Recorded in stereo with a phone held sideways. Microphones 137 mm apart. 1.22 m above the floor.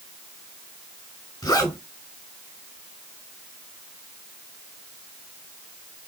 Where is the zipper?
25° left (ahead or behind), 4.5 m.